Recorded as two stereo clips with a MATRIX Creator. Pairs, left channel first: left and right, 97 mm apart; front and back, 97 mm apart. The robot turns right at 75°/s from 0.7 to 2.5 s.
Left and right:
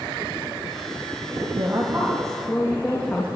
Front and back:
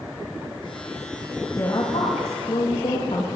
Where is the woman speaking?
50° right, 1.6 m; by 3.3 s 20° left, 1.6 m.